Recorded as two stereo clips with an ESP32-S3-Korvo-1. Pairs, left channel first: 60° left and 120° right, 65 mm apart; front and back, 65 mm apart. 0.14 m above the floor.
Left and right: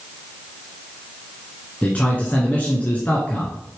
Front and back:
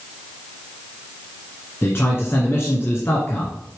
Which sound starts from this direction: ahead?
A man speaking, at 1.8 s.